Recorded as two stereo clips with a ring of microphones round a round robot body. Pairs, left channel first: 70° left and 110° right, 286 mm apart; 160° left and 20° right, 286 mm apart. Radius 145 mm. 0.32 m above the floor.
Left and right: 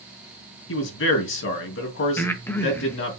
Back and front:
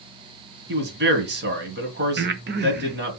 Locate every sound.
0.7 s a man speaking: 25° left, 2.5 m
2.2 s breathing: 10° right, 0.9 m